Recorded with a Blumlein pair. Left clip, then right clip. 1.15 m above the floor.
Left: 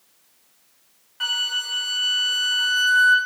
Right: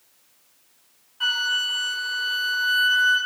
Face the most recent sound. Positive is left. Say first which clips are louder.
# right 1 dB
turn(degrees=40)